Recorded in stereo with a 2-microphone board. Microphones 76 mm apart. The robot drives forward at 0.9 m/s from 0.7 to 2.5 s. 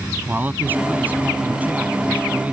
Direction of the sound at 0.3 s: 25° right (ahead or behind).